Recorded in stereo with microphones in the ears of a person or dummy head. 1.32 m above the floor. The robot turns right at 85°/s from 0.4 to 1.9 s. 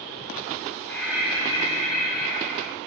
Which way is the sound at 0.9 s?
165° left.